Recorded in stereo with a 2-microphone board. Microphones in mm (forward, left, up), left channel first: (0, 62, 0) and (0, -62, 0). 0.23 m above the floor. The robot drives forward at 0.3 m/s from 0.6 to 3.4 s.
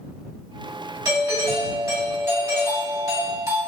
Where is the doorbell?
25° right (ahead or behind), 2.0 m; by 3.6 s 30° right (ahead or behind), 1.7 m.